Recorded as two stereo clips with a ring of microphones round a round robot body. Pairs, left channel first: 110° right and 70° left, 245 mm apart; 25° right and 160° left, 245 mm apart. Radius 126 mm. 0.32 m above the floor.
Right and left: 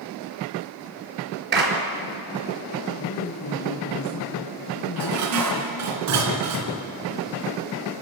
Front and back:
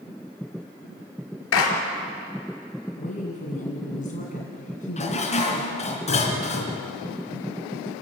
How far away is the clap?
About 4.5 m.